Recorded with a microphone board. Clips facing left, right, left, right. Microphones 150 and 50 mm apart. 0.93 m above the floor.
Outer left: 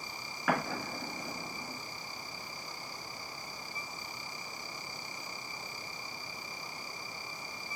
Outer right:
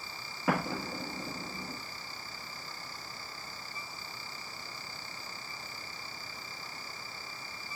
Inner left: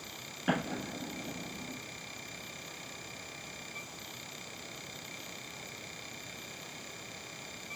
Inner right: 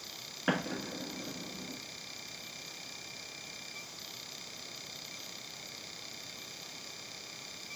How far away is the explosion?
About 2 m.